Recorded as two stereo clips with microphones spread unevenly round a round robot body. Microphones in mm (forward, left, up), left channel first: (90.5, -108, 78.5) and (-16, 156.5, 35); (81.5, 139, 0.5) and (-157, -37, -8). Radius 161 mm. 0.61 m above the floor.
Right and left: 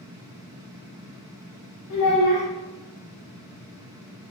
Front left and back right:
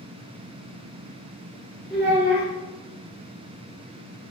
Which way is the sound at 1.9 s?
55° right.